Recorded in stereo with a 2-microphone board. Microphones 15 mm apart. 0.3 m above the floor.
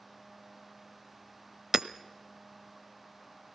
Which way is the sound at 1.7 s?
40° right (ahead or behind).